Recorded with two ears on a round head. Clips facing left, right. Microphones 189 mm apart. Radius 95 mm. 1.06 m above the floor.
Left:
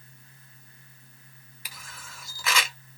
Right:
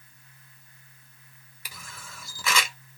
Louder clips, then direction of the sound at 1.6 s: Right 2 dB; 80° right.